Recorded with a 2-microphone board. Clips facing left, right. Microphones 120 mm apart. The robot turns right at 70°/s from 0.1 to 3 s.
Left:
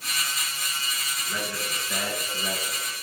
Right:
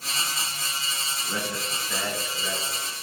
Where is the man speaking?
40° right, 2.5 m; by 2.8 s 70° left, 2.5 m.